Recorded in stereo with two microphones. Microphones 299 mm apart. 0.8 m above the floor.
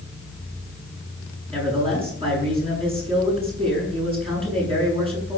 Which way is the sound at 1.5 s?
20° right (ahead or behind).